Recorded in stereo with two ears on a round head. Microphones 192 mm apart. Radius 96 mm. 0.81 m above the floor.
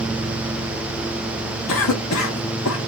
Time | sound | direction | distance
1.7 | a cough | 70° left (ahead or behind) | 1.0 m